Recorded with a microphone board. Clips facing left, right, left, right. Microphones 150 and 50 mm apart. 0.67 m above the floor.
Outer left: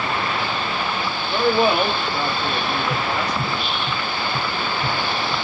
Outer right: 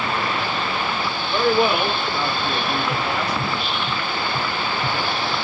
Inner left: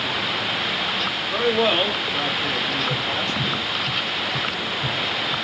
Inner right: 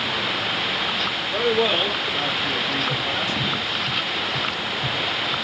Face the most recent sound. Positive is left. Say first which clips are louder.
# even, even
turn(degrees=30)  # may be behind; listen again after turning